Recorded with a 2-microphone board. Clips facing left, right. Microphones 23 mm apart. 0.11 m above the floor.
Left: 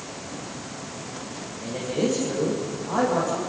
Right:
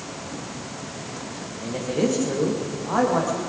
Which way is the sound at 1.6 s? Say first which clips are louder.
Right 2 dB; 25° right (ahead or behind).